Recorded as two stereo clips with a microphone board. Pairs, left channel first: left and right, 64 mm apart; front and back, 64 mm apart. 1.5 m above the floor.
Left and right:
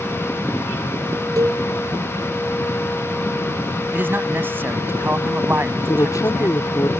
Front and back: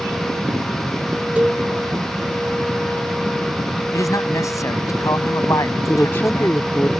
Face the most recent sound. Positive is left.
turn(degrees=60)